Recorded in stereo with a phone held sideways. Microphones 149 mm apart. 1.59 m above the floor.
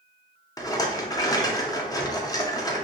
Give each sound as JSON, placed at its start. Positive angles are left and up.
{"t": 0.6, "sound": "a rattle", "side_deg": 25, "distance_m": 0.5}